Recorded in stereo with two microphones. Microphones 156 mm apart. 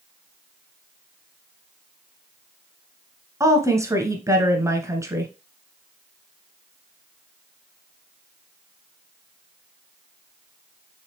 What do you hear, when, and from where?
3.4 s a woman speaking: 20° right (ahead or behind), 1.1 m